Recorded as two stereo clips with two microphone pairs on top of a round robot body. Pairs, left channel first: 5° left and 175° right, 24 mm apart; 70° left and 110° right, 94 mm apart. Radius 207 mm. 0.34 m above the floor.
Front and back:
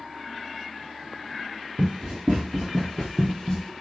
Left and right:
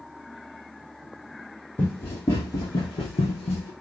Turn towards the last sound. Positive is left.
turn(degrees=60)